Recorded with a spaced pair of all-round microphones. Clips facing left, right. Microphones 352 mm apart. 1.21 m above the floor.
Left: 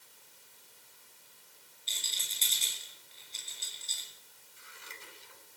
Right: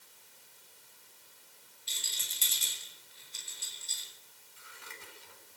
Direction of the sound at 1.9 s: 20° right (ahead or behind).